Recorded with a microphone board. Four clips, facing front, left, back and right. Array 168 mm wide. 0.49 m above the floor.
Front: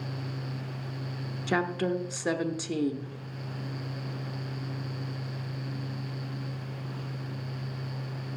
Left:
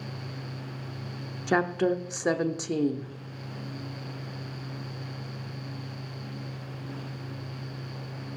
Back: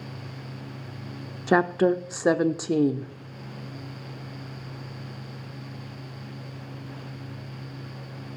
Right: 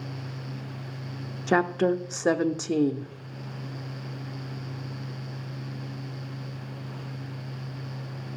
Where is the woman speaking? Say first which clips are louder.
Right 2 dB, back 8 dB; 160° right, 0.8 m.